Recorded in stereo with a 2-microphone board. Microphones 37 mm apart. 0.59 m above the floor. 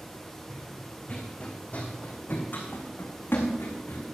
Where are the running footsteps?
10° left (ahead or behind), 2.5 m; by 4.1 s 75° left (ahead or behind), 3 m.